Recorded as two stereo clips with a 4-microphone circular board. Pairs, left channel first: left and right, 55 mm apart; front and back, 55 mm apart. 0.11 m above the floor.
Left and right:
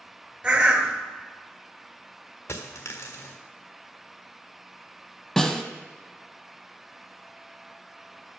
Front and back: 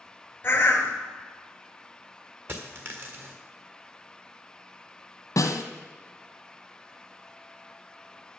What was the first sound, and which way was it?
A bird, 30° right.